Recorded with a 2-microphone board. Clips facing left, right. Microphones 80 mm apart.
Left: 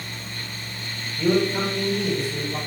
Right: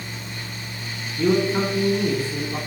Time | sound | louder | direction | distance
1.2 | a man speaking | right 1 dB | 35° right (ahead or behind) | 3 m